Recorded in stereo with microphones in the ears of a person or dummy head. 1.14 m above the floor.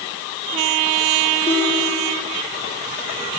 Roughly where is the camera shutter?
No camera shutter in this recording.